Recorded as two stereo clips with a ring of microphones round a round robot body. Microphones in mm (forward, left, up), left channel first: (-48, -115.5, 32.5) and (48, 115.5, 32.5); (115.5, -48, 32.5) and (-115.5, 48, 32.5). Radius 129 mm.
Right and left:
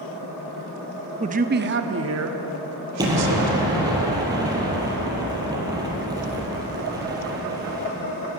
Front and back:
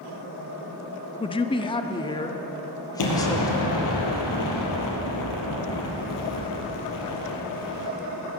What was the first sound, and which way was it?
A man speaking, 25° left.